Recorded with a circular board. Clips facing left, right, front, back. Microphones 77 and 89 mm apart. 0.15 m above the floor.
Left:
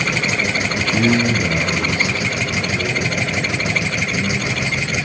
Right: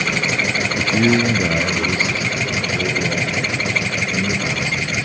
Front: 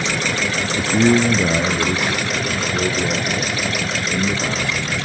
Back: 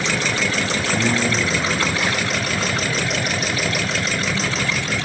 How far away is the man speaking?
About 1.7 m.